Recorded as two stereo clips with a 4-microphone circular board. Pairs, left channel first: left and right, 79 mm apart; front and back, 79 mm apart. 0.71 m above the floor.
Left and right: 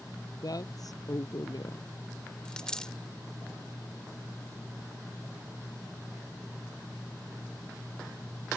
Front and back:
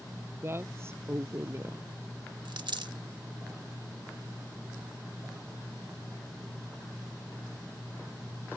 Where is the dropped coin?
170° left.